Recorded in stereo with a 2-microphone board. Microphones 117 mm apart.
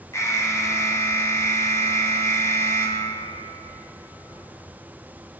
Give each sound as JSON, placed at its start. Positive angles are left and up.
{"t": 0.1, "sound": "an alarm", "side_deg": 25, "distance_m": 1.2}